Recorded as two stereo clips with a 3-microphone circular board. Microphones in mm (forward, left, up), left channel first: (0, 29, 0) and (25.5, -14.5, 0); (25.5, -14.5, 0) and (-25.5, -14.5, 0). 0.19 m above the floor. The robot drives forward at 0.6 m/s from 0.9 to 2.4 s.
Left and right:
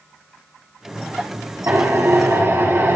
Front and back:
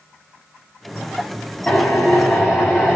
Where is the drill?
85° right, 4 m; by 3.0 s 90° right, 4 m.